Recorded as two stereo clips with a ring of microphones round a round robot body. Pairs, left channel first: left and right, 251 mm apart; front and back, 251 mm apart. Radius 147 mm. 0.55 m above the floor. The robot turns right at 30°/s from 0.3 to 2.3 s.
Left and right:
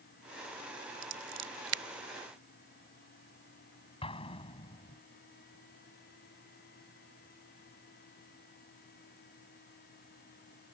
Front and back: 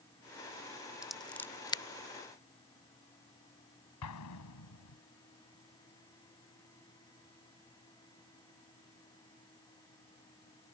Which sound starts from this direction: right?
Scissors, at 1.0 s.